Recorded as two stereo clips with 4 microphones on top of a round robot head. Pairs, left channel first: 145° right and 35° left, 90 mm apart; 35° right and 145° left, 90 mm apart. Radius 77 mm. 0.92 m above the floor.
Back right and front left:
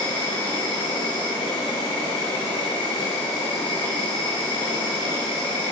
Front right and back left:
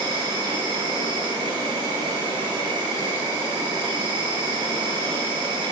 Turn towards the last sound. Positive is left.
turn(degrees=-175)